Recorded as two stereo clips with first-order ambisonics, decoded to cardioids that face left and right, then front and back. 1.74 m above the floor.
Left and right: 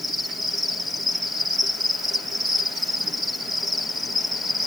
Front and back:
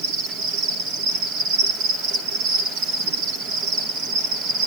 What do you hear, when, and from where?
0.0 s an insect: 170° right, 1.8 m